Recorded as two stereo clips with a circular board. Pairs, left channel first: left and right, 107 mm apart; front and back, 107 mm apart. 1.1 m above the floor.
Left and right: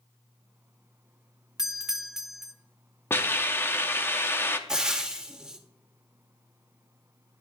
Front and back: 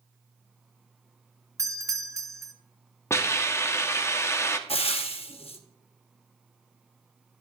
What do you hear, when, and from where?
1.6 s a doorbell: 170° right, 0.5 m
3.1 s a hiss: 40° left, 0.6 m
4.7 s frying: 5° right, 0.8 m